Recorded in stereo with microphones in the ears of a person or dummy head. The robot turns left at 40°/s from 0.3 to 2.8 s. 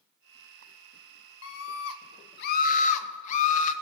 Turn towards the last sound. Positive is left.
turn(degrees=50)